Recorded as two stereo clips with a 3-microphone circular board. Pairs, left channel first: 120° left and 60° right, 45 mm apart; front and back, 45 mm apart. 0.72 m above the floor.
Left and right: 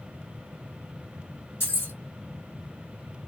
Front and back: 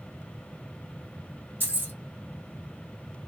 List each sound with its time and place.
1.6 s keys jangling: 140° left, 1.7 m